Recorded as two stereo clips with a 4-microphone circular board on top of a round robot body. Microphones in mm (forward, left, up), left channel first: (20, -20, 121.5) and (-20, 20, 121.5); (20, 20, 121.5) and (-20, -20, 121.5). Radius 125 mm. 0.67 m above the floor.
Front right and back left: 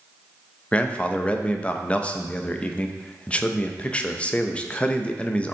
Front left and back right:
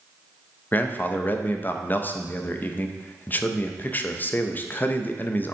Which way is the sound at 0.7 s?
10° left.